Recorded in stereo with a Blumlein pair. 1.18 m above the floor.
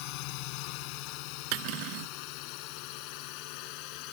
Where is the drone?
45° left.